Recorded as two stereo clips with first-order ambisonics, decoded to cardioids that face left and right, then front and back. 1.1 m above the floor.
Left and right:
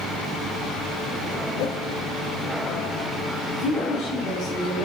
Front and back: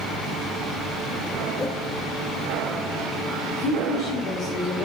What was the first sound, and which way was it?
A whoosh, 70° left.